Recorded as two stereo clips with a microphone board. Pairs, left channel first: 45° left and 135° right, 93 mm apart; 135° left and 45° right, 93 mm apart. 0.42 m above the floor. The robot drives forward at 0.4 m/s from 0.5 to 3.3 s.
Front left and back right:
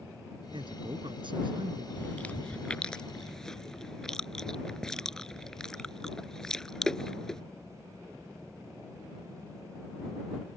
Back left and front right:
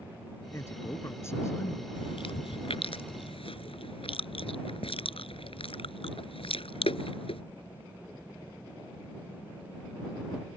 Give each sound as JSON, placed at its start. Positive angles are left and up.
{"t": 0.5, "sound": "a man speaking", "azimuth_deg": -165}
{"t": 1.9, "sound": "chewing", "azimuth_deg": 115}